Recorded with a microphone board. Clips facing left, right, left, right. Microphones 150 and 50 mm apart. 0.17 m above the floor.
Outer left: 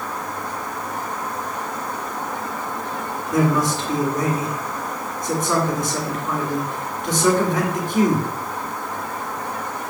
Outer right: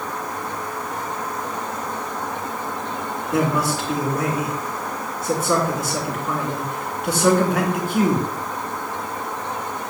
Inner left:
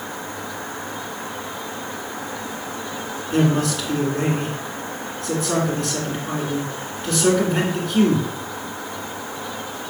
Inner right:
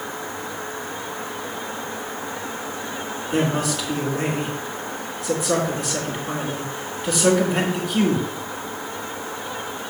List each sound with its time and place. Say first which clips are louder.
3.3 s a man speaking: outer left 2 dB, inner left 3 dB; 5° right (ahead or behind), 2.5 m